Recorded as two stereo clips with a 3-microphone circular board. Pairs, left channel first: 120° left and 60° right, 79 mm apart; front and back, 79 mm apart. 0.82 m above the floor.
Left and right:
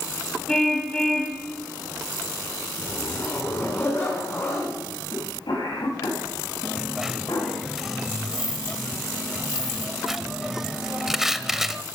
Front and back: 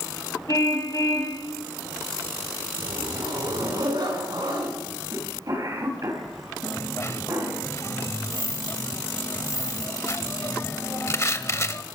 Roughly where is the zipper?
Behind.